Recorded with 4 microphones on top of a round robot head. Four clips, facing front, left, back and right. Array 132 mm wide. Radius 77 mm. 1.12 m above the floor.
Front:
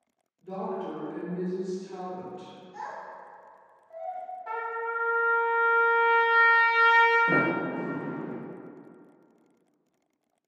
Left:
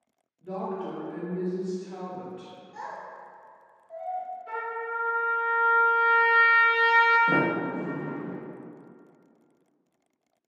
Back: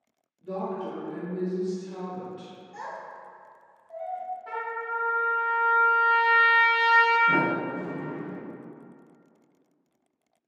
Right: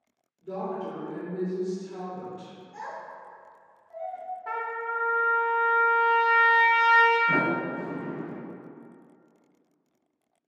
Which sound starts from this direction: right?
A trumpet, at 4.5 s.